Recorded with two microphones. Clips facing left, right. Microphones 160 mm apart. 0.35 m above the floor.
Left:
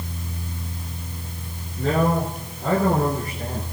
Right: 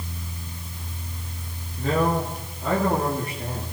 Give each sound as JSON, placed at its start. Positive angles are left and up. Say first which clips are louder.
{"t": 1.8, "sound": "a man speaking", "louder": "left 2 dB", "side_deg": 75, "distance_m": 6.5}